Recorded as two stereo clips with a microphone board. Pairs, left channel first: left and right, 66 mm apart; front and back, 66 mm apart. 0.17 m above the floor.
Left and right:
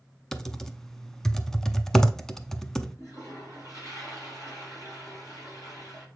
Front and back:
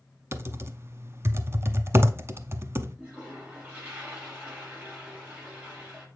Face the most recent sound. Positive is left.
turn(degrees=120)